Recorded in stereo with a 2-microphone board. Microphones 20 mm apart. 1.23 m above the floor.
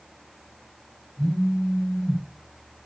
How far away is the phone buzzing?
About 0.8 m.